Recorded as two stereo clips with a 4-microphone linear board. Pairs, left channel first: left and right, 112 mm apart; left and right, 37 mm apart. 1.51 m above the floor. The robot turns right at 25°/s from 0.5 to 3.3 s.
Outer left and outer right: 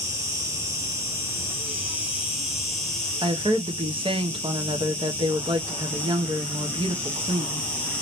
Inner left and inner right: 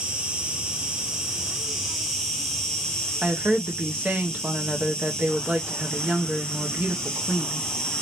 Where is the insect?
55° right, 1.3 m; by 8.0 s 15° left, 1.3 m.